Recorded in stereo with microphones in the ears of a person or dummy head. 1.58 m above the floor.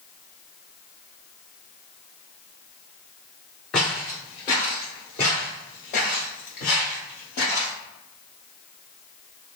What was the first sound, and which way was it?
Footsteps, 10° left (ahead or behind).